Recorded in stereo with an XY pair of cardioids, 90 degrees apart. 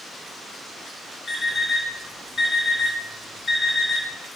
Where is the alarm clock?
55° left, 3 m.